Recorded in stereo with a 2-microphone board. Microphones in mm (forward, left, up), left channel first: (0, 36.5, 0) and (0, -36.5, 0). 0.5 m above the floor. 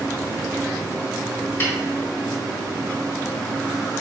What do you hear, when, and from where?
1.6 s a snare drum: 30° left (ahead or behind), 1.4 m